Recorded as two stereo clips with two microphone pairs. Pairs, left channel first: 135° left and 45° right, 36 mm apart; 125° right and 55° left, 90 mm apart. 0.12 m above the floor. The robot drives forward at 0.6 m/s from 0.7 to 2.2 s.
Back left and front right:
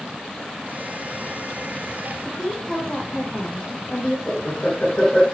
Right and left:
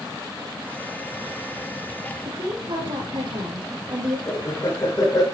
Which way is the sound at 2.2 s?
70° left.